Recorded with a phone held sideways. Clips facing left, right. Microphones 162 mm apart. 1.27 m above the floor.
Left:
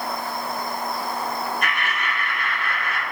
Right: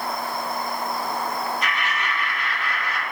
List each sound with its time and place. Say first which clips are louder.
1.6 s laughter: even; 55° left (ahead or behind), 1.4 m